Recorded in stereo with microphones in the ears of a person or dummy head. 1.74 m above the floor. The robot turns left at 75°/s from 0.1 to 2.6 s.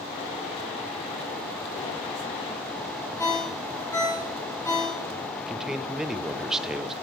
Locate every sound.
3.2 s a ringtone: 15° left (ahead or behind), 1.6 m
5.3 s a man speaking: centre (ahead or behind), 0.5 m